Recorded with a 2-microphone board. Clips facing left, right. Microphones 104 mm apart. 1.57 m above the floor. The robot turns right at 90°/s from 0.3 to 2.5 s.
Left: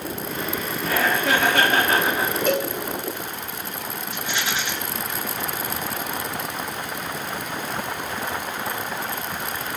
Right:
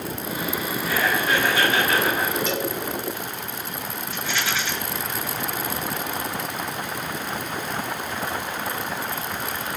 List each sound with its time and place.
0.8 s laughter: 50° left, 3 m; by 2.4 s 175° right, 3 m
2.5 s a cowbell: 50° left (ahead or behind), 1.1 m
4.1 s a rattle: 20° left (ahead or behind), 8.5 m